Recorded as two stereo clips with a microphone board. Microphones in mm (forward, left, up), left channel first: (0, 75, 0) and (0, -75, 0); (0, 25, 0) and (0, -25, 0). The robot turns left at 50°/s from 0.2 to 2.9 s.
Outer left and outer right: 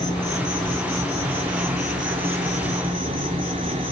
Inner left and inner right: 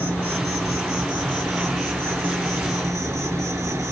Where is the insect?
30° left, 2 m; by 3.9 s 105° right, 2 m.